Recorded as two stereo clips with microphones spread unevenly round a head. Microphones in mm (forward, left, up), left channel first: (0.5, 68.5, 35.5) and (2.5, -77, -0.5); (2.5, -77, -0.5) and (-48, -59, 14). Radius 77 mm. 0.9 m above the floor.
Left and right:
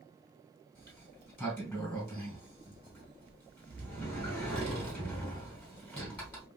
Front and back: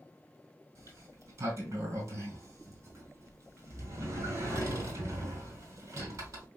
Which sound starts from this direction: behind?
A sliding door, at 0.8 s.